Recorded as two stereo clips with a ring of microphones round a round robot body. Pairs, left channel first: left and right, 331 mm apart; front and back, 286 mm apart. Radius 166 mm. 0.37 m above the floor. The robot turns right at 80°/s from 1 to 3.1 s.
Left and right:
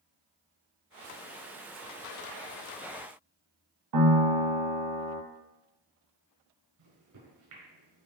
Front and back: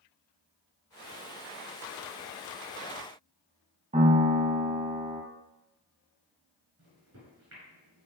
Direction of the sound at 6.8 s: 120° right.